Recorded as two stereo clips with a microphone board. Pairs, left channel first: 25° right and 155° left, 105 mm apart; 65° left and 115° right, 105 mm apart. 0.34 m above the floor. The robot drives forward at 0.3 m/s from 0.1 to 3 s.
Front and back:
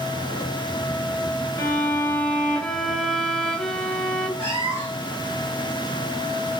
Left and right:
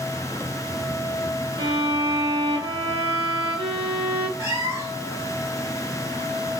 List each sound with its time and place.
1.6 s a violin: 80° right, 0.8 m; by 4.3 s 110° right, 0.8 m
4.4 s a cat meowing: 170° right, 1.8 m